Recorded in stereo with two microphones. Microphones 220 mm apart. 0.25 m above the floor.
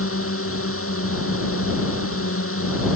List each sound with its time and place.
0.0 s a drone: 80° left